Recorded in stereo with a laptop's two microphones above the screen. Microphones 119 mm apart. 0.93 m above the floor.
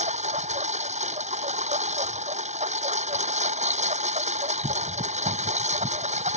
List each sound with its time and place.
0.0 s a lawn mower: 70° right (ahead or behind)